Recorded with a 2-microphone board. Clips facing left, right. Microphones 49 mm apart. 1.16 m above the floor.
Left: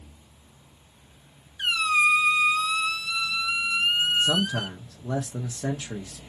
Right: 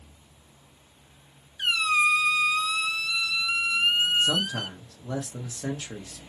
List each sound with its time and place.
1.6 s a squeak: 5° left (ahead or behind), 0.9 m
4.2 s a man speaking: 10° left (ahead or behind), 0.8 m